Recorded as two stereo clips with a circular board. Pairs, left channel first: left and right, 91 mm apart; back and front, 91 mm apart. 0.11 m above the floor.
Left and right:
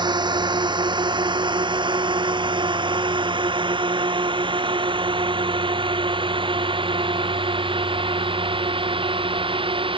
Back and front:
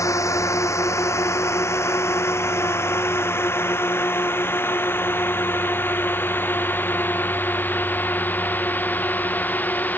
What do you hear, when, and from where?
0.0 s a drone: 125° right; by 10.0 s 110° right